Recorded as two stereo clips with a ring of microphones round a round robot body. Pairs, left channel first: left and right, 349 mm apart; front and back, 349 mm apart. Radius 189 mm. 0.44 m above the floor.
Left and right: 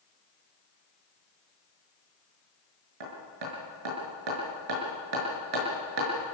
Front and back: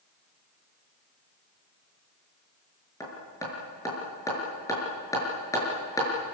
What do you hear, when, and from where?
3.0 s hammering: 80° right, 6 m